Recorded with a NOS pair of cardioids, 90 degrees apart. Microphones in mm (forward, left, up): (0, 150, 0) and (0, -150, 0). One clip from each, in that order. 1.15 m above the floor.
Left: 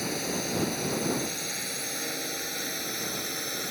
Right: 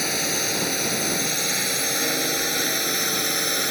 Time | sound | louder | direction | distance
0.0 | a drone | right 7 dB | 65° right | ?